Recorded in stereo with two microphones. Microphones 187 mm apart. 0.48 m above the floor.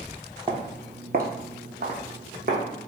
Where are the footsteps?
30° right (ahead or behind), 0.7 m; by 2.9 s 50° right (ahead or behind), 1.7 m.